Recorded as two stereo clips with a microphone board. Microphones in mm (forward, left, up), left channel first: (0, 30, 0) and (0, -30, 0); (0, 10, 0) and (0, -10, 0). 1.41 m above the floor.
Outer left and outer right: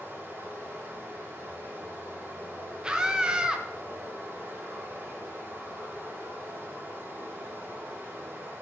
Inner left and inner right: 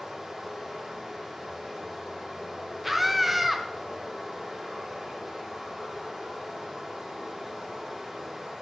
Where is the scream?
15° right (ahead or behind), 0.7 m.